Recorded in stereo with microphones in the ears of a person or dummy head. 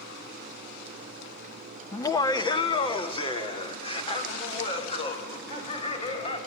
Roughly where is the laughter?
Left.